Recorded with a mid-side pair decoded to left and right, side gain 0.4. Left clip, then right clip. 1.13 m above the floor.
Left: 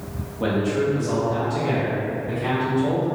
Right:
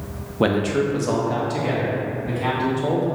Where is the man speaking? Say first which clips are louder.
Right 2 dB; 70° right, 0.6 m; by 3.1 s 80° right, 2 m.